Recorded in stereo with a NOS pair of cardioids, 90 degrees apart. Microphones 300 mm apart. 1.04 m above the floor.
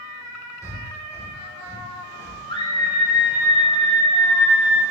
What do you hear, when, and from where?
0.6 s breathing: 10° left, 2.5 m
2.5 s a scream: 15° left, 3.5 m